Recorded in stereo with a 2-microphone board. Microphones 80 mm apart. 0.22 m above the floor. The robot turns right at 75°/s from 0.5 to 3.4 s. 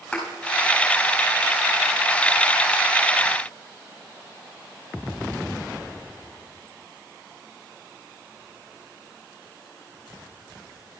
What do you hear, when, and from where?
0.1 s a thud: 10° left (ahead or behind), 5 m